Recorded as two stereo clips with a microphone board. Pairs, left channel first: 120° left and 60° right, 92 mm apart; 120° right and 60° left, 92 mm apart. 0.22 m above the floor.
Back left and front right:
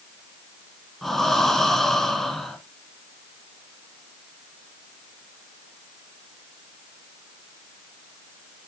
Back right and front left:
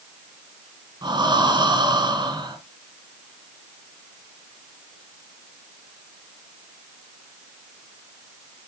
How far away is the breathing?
About 1.6 m.